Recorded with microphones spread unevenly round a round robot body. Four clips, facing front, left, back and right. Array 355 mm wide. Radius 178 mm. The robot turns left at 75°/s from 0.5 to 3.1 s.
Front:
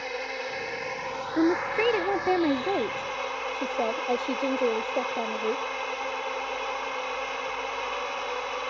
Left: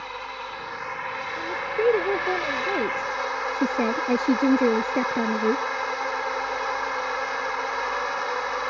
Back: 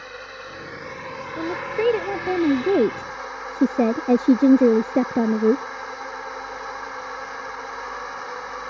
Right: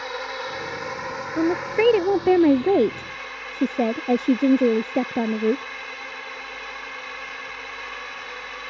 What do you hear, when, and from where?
0.0 s a drone: 80° right; by 8.7 s 85° left
1.3 s a woman speaking: 35° right; by 5.6 s 170° right